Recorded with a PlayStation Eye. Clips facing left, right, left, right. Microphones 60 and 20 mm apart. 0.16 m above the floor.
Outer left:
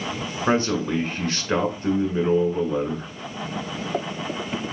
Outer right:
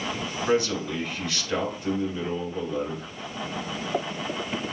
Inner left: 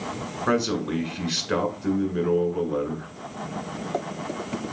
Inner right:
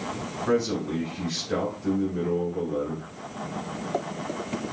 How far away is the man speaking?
About 1.4 m.